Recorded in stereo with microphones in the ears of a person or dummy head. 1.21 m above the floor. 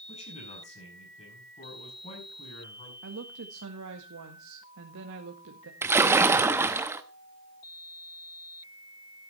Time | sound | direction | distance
0.1 | a man speaking | 35° left (ahead or behind) | 8.5 m
3.0 | a woman speaking | 70° right (ahead or behind) | 1.8 m
5.8 | a splash | 10° right (ahead or behind) | 0.9 m